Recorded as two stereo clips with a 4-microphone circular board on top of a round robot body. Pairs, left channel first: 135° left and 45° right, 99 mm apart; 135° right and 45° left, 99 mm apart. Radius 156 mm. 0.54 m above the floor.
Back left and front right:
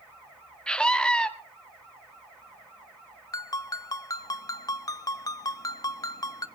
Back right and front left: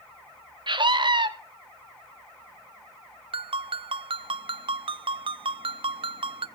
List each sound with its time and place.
0.7 s a scream: 55° left, 2.0 m
3.3 s a ringtone: 80° left, 0.5 m